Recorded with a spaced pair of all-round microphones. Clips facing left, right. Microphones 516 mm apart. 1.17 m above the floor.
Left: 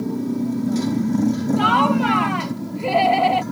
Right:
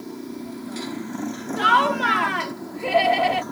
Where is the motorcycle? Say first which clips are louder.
Left 11 dB; 70° left (ahead or behind); by 3.5 s 45° left (ahead or behind).